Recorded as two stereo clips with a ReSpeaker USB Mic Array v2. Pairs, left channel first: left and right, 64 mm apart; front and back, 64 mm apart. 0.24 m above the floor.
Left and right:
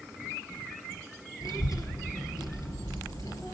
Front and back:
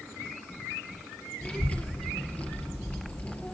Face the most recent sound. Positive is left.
turn(degrees=70)